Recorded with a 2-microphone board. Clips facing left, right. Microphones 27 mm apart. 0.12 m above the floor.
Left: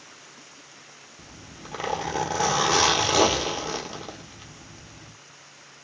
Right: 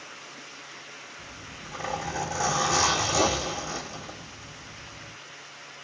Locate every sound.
1.2 s a zipper: 60° left (ahead or behind), 0.9 m